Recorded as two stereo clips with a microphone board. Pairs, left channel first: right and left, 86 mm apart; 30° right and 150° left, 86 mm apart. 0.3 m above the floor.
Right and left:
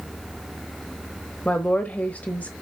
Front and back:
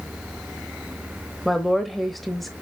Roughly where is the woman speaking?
Behind right.